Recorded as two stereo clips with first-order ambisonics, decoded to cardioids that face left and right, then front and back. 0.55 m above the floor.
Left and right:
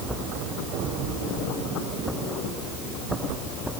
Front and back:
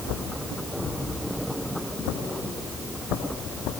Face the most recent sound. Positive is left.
No sound to turn to.